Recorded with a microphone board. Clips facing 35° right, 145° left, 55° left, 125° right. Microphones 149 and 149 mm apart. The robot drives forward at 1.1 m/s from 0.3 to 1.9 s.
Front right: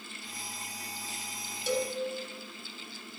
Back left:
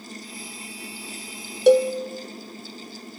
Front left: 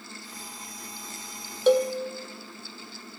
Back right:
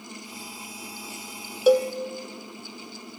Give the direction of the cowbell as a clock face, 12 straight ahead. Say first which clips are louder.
Back left 16 dB, back right 2 dB; 7 o'clock.